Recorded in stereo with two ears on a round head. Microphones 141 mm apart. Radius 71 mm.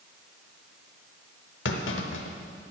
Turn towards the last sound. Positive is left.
turn(degrees=85)